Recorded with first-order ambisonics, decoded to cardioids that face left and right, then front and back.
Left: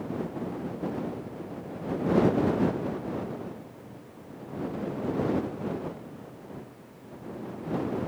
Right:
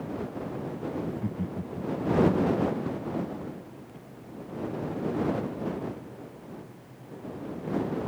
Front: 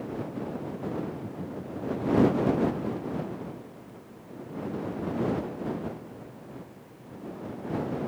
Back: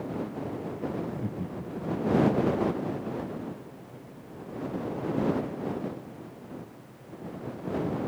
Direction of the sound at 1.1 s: 140° right.